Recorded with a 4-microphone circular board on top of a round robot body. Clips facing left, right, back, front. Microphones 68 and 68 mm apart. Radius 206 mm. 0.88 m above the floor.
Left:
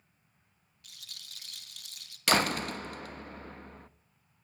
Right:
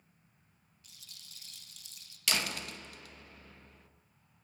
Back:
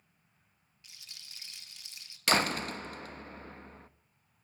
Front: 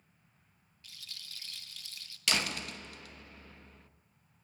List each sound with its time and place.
0.8 s a rattle: 110° left, 3 m
2.3 s a door slam: 130° left, 1.1 m